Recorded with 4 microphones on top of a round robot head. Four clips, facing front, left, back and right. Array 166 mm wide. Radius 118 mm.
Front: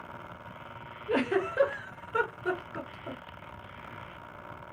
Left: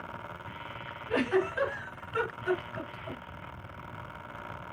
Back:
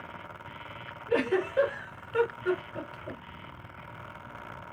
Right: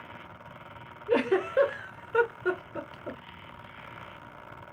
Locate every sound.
1.1 s a giggle: 80° right, 1.4 m